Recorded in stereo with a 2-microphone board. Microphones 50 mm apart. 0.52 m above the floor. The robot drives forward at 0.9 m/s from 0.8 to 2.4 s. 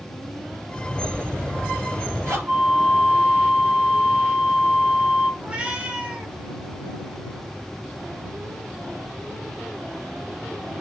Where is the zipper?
50° right (ahead or behind), 4.5 m; by 2.4 s 60° right (ahead or behind), 4 m.